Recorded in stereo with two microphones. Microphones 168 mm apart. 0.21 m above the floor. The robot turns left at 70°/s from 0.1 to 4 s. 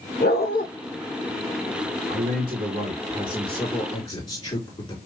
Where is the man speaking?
85° right, 3 m; by 5.0 s 140° left, 3 m.